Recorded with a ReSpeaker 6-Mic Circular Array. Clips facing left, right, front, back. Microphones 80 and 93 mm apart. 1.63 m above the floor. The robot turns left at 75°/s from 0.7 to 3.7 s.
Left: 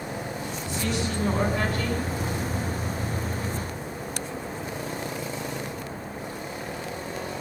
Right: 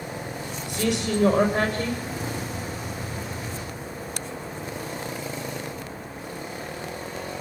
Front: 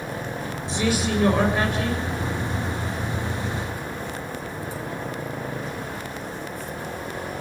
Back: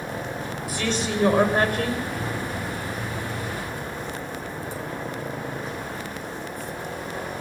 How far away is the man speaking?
About 7 m.